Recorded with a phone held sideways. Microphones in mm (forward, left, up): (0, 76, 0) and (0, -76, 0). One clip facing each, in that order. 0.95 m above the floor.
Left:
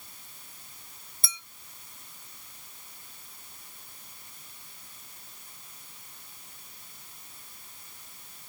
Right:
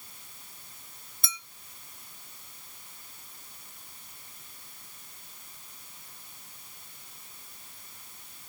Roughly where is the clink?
Left.